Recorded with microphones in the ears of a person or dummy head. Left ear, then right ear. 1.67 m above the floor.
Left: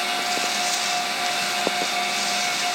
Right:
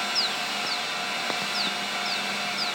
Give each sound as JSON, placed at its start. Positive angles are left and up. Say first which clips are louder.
{"t": 0.0, "sound": "a fan", "louder": "left 3 dB", "side_deg": 10, "distance_m": 1.9}